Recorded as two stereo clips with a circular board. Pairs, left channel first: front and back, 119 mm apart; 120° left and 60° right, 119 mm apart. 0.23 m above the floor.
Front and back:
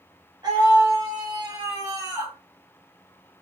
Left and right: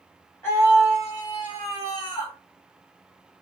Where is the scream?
175° left, 1.9 m; by 2.4 s 135° left, 2 m.